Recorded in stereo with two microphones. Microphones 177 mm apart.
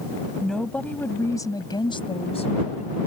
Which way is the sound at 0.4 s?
Centre (ahead or behind).